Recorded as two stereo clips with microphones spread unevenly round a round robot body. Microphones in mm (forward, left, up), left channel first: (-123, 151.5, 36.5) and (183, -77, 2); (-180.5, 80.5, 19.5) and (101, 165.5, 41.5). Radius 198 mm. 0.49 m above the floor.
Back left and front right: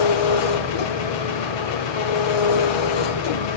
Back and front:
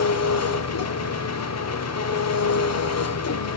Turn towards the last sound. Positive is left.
turn(degrees=165)